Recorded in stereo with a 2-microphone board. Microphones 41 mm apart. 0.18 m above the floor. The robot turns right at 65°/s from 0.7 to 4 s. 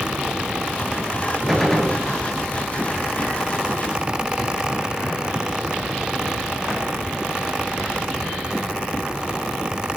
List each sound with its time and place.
1.5 s a gunshot: 5° right, 1.8 m; by 2.0 s 35° left, 1.8 m